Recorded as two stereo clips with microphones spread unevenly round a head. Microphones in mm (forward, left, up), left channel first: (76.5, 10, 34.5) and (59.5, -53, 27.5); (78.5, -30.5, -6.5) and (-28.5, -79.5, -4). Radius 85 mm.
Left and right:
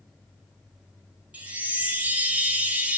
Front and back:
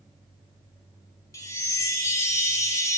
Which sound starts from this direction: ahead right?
A chime, at 1.3 s.